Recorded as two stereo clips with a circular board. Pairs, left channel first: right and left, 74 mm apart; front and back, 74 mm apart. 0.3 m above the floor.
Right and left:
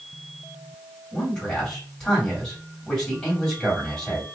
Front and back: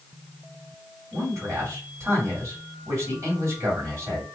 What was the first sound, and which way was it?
A man speaking, 165° right.